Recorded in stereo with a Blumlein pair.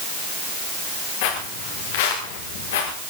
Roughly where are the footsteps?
Ahead left.